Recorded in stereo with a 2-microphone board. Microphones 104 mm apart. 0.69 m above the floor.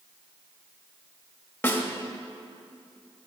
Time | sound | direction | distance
1.6 | a snare drum | 20° left (ahead or behind) | 1.2 m